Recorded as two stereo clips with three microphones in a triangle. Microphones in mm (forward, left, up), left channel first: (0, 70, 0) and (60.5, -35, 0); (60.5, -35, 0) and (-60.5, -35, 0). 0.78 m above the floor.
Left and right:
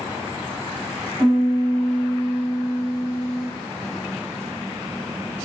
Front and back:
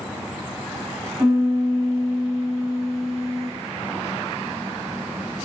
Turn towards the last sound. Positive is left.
turn(degrees=-100)